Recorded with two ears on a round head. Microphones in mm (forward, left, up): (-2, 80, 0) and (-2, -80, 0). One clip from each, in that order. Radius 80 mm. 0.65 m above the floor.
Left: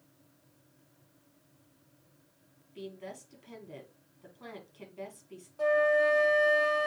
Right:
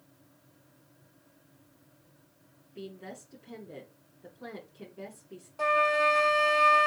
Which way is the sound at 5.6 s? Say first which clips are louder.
Right 1 dB; 45° right (ahead or behind).